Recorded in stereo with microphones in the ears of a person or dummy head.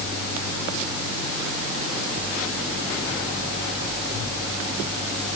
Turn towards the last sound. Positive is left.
No sound to turn to.